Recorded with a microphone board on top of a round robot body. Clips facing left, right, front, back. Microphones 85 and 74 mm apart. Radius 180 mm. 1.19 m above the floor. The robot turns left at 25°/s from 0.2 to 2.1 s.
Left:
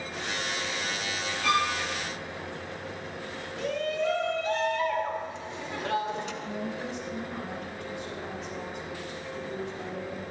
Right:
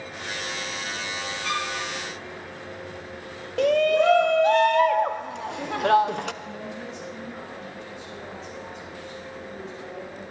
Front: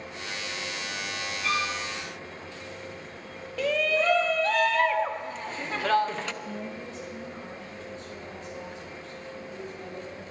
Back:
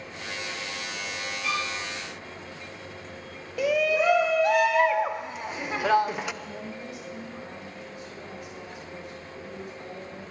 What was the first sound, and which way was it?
A violin, 100° left.